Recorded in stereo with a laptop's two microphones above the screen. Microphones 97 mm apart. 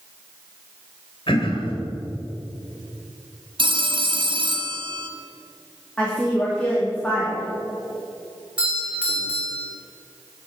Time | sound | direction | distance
1.3 | throat clearing | 60° left (ahead or behind) | 3 m
3.6 | a phone ringing | 55° right (ahead or behind) | 0.7 m
6.0 | a woman speaking | 10° left (ahead or behind) | 2.5 m
8.6 | a doorbell | 10° right (ahead or behind) | 4.5 m